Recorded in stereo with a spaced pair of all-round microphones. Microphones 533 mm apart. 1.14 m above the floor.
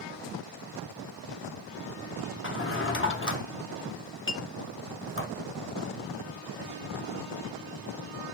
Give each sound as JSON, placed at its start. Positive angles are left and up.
{"t": 2.4, "sound": "a drawer", "side_deg": 25, "distance_m": 0.7}
{"t": 4.3, "sound": "a clink", "side_deg": 25, "distance_m": 0.7}